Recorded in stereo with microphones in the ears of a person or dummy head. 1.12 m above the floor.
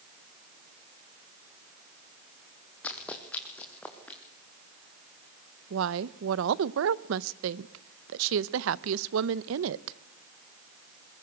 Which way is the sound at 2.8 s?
10° left (ahead or behind).